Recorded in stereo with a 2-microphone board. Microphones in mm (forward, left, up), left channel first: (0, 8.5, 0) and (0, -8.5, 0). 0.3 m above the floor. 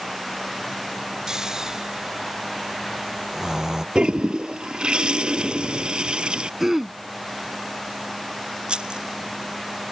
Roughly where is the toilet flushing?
Right.